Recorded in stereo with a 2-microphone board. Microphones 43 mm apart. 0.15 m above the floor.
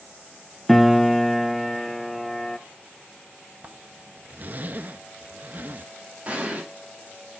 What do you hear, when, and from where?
0.7 s a piano: centre (ahead or behind), 0.5 m
3.6 s a zipper: 45° right (ahead or behind), 0.9 m
6.2 s an explosion: 30° right (ahead or behind), 7.5 m